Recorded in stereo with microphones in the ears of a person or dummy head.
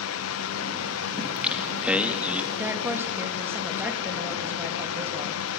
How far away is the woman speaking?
About 2.5 m.